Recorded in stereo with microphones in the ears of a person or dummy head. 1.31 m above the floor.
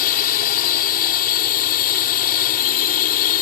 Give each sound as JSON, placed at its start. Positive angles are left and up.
{"t": 0.0, "sound": "a drone", "side_deg": 50}